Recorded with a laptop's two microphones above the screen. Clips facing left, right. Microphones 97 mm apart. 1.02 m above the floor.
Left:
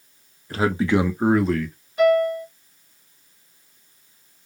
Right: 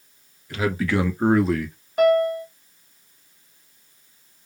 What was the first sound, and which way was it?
A man speaking, 35° left (ahead or behind).